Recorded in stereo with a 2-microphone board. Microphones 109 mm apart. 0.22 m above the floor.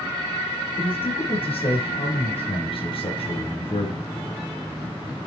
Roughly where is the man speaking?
Left.